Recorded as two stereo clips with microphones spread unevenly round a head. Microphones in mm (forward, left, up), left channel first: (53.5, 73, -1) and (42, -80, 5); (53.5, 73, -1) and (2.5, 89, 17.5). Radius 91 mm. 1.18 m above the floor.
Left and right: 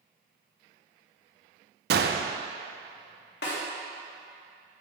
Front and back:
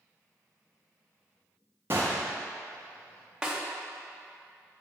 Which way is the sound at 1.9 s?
120° right.